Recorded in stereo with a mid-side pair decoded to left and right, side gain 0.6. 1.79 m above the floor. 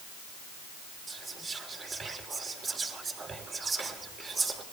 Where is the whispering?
35° right, 5 m.